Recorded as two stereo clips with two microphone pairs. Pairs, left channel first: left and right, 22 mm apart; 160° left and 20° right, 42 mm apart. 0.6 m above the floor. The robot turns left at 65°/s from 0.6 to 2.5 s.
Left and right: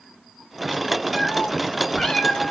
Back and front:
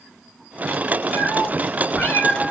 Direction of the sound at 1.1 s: 165° right.